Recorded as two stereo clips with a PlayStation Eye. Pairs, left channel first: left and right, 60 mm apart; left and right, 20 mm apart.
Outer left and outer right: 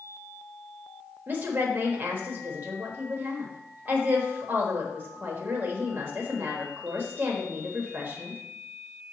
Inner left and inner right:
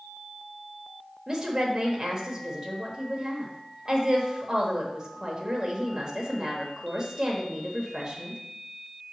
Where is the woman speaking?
30° right (ahead or behind), 1.1 m.